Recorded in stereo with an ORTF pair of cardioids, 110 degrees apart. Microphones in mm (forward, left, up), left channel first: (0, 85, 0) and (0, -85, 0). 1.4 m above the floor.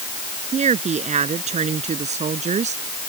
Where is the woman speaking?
40° right; by 3.1 s 45° right.